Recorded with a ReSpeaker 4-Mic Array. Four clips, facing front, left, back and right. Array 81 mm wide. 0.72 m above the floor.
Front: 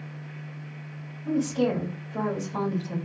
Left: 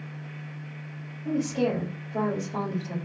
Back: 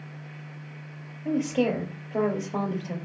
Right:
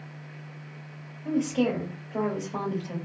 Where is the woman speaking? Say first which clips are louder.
Right 1 dB, even; 170° right, 2 m.